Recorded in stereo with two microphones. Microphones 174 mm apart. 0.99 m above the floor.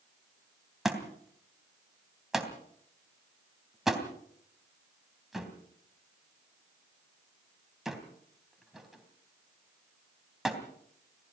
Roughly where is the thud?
Centre.